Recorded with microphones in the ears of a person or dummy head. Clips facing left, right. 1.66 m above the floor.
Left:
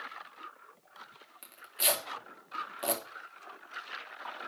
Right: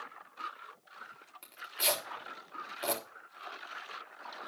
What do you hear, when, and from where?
1.4 s tearing paper: 10° left (ahead or behind), 3 m